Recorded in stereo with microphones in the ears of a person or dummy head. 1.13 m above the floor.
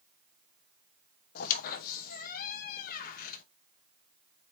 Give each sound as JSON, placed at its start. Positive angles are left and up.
{"t": 1.4, "sound": "a squeak", "side_deg": 50, "distance_m": 0.6}